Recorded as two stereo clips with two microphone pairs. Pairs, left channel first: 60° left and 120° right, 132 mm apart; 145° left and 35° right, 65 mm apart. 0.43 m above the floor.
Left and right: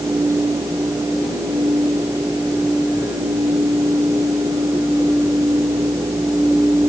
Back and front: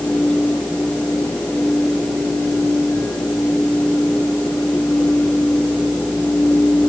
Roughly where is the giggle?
No giggle in this recording.